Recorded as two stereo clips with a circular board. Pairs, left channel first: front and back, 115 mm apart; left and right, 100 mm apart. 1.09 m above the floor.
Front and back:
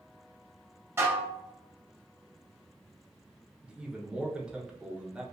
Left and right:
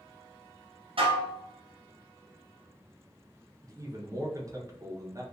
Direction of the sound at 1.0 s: 110° right.